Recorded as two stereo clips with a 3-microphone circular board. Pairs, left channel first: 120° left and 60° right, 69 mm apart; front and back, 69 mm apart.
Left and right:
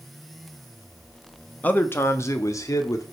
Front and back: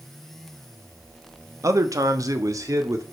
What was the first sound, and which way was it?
A man speaking, straight behind.